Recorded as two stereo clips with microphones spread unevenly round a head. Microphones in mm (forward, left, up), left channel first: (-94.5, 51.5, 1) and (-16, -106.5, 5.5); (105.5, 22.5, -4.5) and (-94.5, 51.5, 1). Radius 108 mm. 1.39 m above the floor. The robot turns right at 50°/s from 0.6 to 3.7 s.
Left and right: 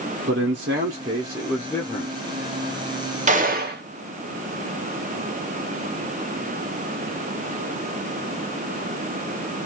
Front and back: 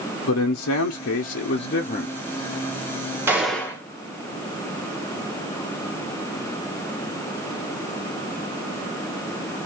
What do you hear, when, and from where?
0.3 s a man speaking: 30° right, 0.6 m; by 2.1 s 50° left, 0.6 m
3.3 s a gunshot: 110° right, 0.9 m; by 3.8 s 85° right, 0.9 m